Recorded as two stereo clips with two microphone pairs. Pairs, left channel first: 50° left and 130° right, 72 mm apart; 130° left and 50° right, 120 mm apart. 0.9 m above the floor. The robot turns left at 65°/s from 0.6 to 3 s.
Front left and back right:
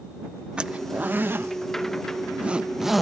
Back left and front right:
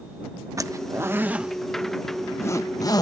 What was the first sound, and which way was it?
A zipper, 65° right.